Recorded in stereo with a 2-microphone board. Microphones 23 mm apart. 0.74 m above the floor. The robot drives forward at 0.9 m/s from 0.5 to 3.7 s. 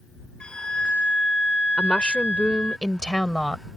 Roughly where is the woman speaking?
Left.